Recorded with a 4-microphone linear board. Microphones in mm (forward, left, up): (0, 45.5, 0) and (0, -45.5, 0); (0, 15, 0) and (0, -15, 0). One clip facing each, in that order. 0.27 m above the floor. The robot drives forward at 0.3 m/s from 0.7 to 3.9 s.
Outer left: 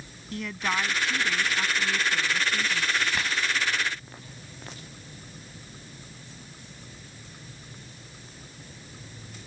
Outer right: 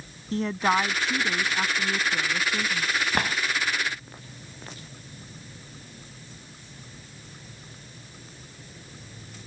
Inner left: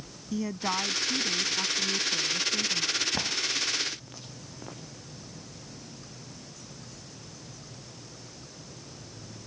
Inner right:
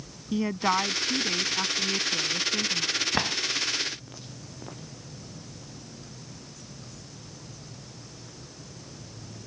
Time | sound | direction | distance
0.3 | a woman speaking | 35° right (ahead or behind) | ?
3.1 | a drawer | 55° right (ahead or behind) | ?